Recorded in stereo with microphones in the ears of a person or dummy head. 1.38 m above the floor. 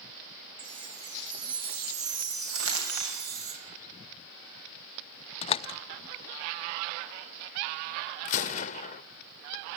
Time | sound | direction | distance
0.6 | a chime | 80° right | 8.5 m
2.5 | crumpling | 75° right (ahead or behind) | 7.5 m
5.4 | a door slam | 35° left (ahead or behind) | 0.6 m
8.2 | a gunshot | 40° left (ahead or behind) | 0.8 m